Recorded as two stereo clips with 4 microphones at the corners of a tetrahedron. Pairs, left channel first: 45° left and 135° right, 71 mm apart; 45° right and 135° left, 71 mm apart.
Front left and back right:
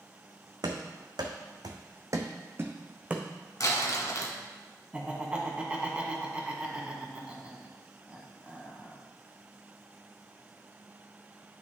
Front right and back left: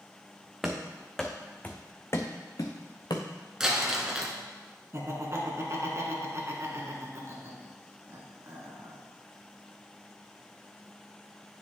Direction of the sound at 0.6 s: 140° right.